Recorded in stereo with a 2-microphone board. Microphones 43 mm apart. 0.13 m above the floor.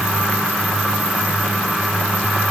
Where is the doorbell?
No doorbell in this recording.